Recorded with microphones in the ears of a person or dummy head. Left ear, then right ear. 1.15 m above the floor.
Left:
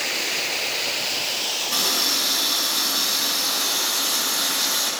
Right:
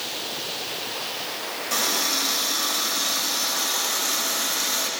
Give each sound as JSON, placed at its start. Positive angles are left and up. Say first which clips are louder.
{"t": 1.7, "sound": "a running tap", "louder": "even", "side_deg": -65, "distance_m": 4.0}